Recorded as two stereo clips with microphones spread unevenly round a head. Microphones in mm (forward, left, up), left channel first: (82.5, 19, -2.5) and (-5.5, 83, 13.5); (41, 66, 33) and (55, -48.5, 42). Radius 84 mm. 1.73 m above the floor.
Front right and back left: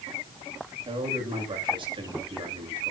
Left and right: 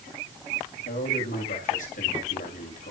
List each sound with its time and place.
0.8 s a man speaking: 100° left, 9 m